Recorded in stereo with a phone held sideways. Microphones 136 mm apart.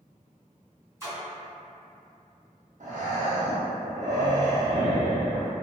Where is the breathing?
70° right (ahead or behind), 0.7 m.